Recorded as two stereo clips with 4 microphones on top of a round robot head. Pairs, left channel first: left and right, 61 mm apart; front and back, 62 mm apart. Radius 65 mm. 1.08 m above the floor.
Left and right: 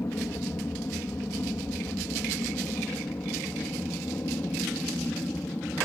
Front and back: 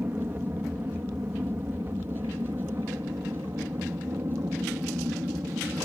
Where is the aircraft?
125° left; by 5.9 s 140° left.